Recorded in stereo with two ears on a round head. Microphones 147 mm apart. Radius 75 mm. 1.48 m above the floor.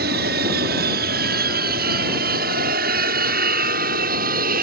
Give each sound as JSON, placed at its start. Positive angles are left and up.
{"t": 0.0, "sound": "an aircraft", "side_deg": -70}